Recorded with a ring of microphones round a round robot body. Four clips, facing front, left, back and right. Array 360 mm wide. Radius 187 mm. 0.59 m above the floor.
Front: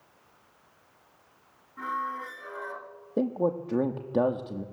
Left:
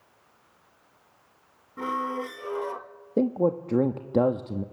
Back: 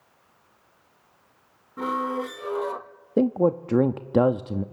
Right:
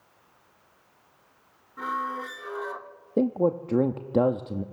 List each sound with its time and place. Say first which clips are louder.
1.8 s a squeak: left 1 dB, back 6 dB; 155° left, 0.8 m
3.2 s a man speaking: even, back 6 dB; straight behind, 0.9 m